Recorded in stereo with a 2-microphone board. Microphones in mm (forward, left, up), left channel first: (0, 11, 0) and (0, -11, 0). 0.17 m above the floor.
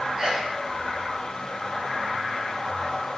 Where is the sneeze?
45° right (ahead or behind), 7 m.